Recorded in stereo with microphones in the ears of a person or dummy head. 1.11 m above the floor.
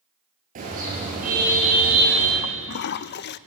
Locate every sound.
0.6 s a car horn: 40° right (ahead or behind), 9 m; by 2.3 s 45° right (ahead or behind), 10 m
2.4 s a toilet flushing: 55° left (ahead or behind), 0.5 m